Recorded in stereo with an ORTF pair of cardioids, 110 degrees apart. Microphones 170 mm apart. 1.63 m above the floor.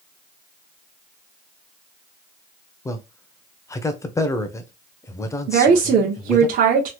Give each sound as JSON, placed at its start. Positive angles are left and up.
{"t": 2.9, "sound": "a man speaking", "azimuth_deg": 15, "distance_m": 0.7}
{"t": 5.5, "sound": "a woman speaking", "azimuth_deg": -60, "distance_m": 1.0}